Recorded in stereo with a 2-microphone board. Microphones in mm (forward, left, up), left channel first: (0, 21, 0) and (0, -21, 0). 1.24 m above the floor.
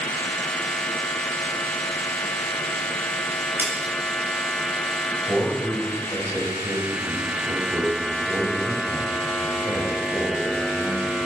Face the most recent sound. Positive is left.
turn(degrees=-90)